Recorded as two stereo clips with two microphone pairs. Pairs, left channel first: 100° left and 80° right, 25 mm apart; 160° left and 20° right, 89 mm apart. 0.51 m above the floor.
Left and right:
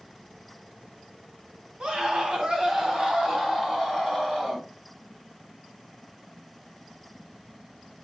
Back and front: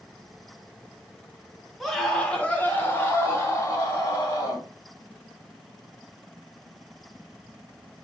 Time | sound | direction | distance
1.8 | a scream | 110° right | 1.1 m